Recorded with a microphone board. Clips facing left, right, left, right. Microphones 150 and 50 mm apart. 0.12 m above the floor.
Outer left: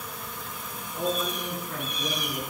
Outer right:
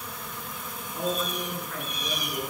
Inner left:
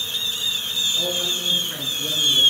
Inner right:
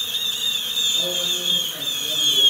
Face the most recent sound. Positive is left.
turn(degrees=40)  # may be behind; listen again after turning